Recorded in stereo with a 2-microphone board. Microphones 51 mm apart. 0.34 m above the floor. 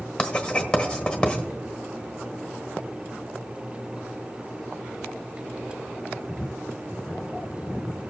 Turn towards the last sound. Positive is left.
turn(degrees=15)  # may be behind; listen again after turning